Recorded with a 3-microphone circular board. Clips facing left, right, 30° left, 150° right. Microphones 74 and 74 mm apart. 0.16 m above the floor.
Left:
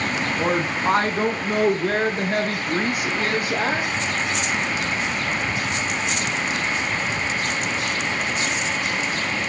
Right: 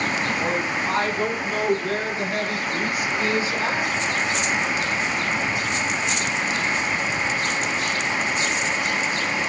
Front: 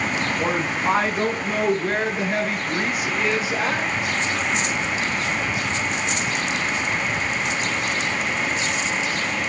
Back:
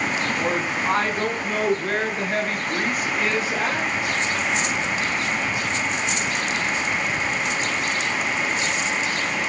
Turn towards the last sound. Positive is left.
turn(degrees=120)